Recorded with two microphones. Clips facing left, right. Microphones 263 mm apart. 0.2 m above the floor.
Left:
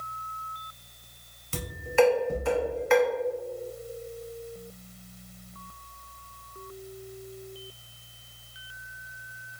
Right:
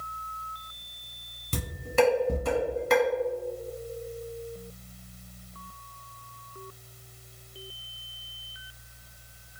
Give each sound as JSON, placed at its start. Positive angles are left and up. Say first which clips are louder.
{"t": 1.5, "sound": "dishes clattering", "louder": "left 2 dB", "side_deg": -40, "distance_m": 1.3}